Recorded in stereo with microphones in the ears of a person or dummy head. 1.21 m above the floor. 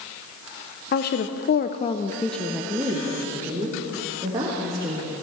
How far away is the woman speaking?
About 1.0 m.